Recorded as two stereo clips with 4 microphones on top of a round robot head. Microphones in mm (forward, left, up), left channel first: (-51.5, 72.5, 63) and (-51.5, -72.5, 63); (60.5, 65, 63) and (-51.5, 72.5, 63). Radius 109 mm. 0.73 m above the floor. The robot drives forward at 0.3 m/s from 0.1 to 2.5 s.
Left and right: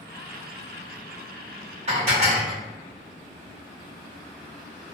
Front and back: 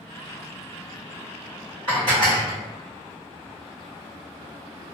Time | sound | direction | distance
1.9 | dishes clattering | 130° right | 1.5 m